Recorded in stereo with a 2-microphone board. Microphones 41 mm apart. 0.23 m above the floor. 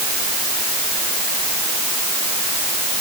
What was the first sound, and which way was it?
Only background noise.